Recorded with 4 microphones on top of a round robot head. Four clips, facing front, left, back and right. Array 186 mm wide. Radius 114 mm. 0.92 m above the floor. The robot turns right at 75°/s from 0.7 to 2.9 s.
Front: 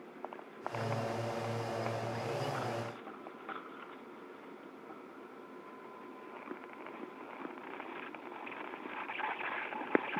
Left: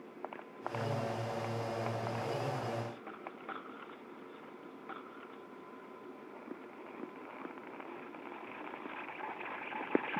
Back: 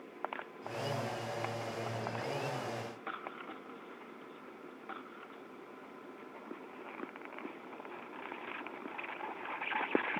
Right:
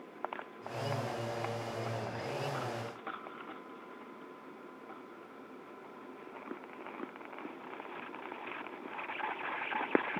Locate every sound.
Only background noise.